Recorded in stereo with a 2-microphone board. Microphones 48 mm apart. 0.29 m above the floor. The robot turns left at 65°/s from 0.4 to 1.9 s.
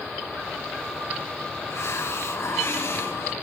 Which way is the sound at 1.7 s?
70° left (ahead or behind).